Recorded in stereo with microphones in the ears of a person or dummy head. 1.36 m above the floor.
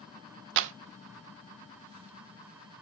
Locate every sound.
0.6 s a clap: 65° right (ahead or behind), 0.9 m